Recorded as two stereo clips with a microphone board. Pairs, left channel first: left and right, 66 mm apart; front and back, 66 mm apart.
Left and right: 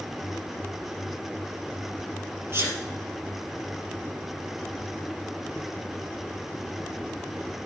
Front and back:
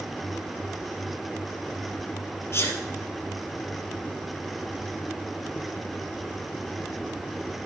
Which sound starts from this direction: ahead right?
A sneeze, at 2.5 s.